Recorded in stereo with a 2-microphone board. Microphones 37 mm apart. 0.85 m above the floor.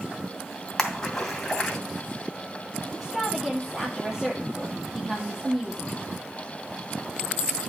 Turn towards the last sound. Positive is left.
turn(degrees=-5)  # may be behind; listen again after turning